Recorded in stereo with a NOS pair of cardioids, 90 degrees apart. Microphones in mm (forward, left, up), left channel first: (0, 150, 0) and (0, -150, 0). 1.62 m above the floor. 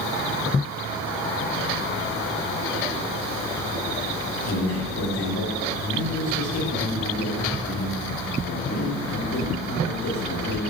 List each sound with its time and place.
4.5 s a man speaking: 55° left, 4 m